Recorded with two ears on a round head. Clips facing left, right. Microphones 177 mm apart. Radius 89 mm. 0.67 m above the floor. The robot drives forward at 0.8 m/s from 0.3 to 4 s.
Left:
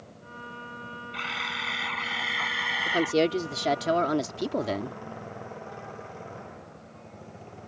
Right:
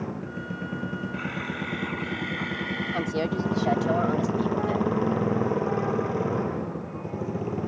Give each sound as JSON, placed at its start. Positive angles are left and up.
{"t": 0.0, "sound": "a motorcycle", "side_deg": -90}
{"t": 1.1, "sound": "a camera shutter", "side_deg": 45}
{"t": 2.9, "sound": "a woman speaking", "side_deg": 35}